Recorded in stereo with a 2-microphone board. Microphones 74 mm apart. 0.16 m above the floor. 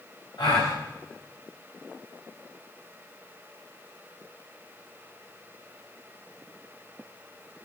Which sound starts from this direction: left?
A gasp, at 0.4 s.